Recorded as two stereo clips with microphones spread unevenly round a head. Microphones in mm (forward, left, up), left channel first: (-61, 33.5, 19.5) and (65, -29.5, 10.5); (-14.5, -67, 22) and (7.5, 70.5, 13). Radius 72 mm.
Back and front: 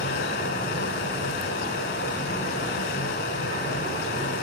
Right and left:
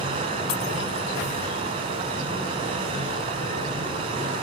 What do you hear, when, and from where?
0.0 s a fan: 135° left, 7 m